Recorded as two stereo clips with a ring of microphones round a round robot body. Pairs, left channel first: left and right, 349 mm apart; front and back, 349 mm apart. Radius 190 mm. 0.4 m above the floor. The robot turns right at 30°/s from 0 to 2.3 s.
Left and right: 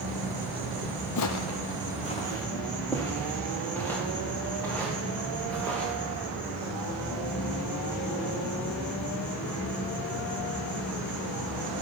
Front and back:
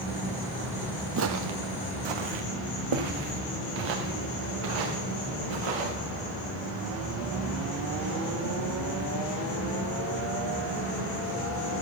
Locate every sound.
0.0 s an insect: 65° right, 7.5 m; by 11.8 s 5° left, 7.5 m
1.2 s footsteps: 125° left, 0.6 m; by 5.9 s 175° left, 4 m